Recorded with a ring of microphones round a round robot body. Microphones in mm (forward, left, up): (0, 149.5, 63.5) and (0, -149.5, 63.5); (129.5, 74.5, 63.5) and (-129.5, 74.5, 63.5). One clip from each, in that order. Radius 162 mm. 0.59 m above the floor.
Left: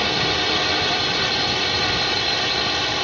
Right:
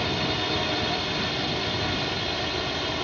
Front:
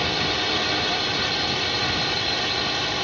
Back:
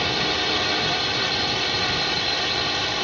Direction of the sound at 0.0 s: 110° left.